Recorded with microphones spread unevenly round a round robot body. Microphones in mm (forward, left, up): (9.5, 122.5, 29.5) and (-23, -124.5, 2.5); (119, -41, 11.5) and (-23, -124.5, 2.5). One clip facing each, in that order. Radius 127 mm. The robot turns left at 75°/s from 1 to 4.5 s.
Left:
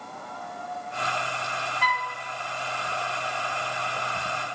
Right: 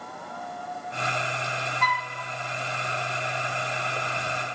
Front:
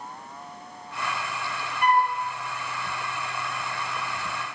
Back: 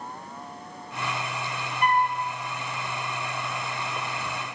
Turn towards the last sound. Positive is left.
turn(degrees=-35)